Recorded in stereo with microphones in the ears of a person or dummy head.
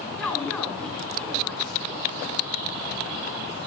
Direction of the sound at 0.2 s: 5° left (ahead or behind).